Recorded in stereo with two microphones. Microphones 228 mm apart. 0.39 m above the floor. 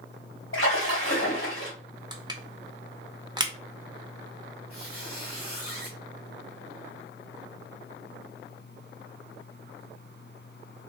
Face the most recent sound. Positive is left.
turn(degrees=80)